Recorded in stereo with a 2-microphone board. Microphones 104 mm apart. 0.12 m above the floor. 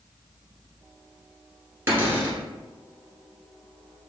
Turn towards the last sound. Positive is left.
turn(degrees=-25)  # may be behind; listen again after turning